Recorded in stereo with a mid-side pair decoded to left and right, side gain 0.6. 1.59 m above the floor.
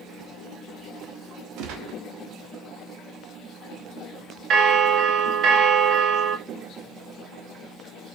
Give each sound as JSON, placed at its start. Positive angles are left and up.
{"t": 1.6, "sound": "a gunshot", "azimuth_deg": -70, "distance_m": 1.2}
{"t": 4.5, "sound": "a bell", "azimuth_deg": -50, "distance_m": 0.9}